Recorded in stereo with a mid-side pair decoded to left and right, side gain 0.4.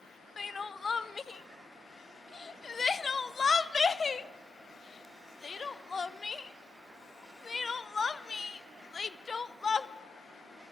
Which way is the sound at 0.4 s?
35° left.